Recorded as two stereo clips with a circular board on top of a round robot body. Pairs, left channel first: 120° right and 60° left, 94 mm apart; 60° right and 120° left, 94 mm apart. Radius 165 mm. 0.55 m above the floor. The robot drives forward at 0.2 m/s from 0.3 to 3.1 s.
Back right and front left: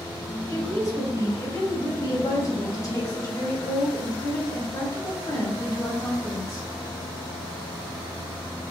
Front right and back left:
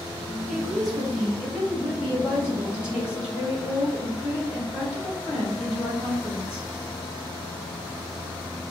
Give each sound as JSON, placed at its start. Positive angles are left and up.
{"t": 0.5, "sound": "a woman speaking", "azimuth_deg": -155, "distance_m": 1.6}